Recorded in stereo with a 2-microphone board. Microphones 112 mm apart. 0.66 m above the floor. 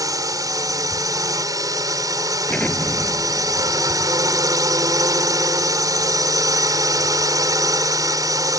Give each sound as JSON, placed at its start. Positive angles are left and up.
{"t": 0.0, "sound": "a drone", "side_deg": -30}
{"t": 2.5, "sound": "an explosion", "side_deg": 10}